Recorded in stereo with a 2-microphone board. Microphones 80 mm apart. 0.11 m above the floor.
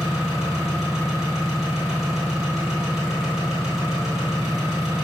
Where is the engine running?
5° right (ahead or behind), 1.5 m.